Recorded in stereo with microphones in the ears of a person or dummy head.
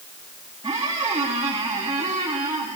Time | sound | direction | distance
0.6 | a squeak | 20° right (ahead or behind) | 1.6 m